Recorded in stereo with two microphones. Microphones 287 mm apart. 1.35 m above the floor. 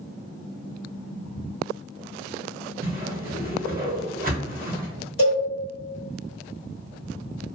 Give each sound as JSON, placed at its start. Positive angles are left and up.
{"t": 2.8, "sound": "a whoosh", "side_deg": -30, "distance_m": 0.7}
{"t": 5.2, "sound": "a cowbell", "side_deg": 50, "distance_m": 1.6}